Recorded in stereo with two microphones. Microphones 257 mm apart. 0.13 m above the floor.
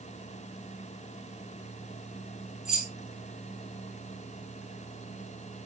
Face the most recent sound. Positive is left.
turn(degrees=-5)  # may be behind; listen again after turning